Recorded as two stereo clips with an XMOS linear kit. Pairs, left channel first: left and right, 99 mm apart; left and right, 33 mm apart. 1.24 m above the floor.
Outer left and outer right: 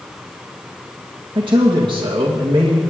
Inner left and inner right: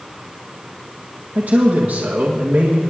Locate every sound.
1.4 s a man speaking: 50° right (ahead or behind), 1.7 m